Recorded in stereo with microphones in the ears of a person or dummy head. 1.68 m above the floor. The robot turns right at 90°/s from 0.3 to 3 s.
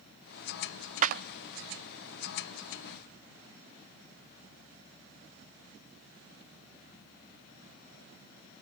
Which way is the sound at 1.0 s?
40° right (ahead or behind).